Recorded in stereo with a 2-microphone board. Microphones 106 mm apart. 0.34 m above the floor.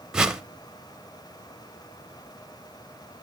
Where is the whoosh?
5° right (ahead or behind), 0.7 m.